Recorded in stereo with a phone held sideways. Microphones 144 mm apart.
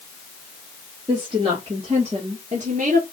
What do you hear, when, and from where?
1.1 s a woman speaking: 35° right (ahead or behind), 2 m; by 3.0 s 65° right (ahead or behind), 1.7 m